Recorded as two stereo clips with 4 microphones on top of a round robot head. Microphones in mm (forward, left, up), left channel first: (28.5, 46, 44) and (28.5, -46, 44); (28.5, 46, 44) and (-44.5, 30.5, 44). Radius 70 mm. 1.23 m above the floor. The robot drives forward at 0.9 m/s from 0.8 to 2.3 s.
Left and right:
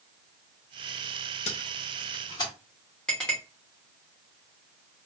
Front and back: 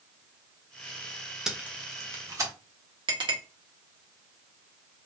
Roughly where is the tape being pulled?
Left.